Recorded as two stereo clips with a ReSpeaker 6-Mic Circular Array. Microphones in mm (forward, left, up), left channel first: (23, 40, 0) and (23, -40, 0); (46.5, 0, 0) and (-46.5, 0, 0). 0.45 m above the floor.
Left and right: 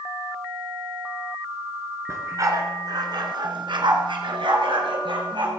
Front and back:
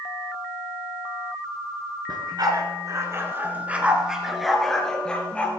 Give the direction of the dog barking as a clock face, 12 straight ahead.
5 o'clock.